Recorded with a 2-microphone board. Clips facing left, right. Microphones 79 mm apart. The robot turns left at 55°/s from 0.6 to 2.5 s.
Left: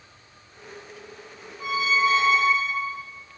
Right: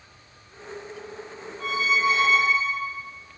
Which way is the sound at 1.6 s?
170° left.